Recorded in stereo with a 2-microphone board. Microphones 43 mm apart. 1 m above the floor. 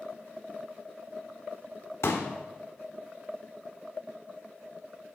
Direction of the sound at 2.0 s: 75° left (ahead or behind).